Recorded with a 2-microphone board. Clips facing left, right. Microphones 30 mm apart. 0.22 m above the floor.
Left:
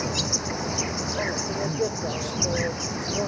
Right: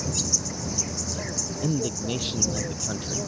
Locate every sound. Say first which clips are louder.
0.0 s an insect: left 3 dB; 35° left (ahead or behind)
1.6 s a man speaking: right 2 dB; 50° right (ahead or behind)